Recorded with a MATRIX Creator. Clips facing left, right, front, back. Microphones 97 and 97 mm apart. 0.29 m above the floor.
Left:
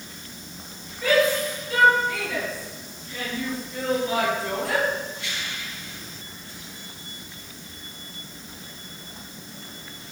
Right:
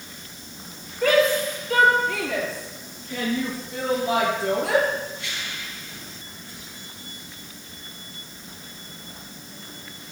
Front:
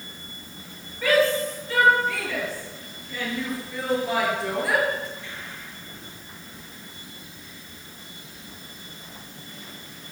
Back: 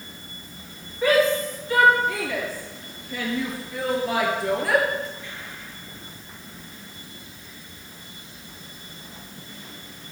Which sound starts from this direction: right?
A shout, at 1.0 s.